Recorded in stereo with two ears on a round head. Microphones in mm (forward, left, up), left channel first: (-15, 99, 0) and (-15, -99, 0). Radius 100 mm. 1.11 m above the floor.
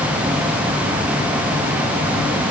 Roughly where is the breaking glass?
No breaking glass in this recording.